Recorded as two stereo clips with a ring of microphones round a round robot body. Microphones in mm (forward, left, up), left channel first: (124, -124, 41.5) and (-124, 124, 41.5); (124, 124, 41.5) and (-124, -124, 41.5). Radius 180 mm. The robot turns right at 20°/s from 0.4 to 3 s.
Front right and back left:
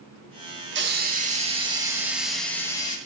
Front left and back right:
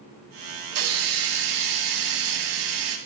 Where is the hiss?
165° right, 2.5 m; by 3.0 s 120° right, 2.5 m.